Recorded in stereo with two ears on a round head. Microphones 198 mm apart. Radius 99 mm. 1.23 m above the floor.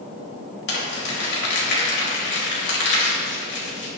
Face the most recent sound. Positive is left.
turn(degrees=55)  # may be behind; listen again after turning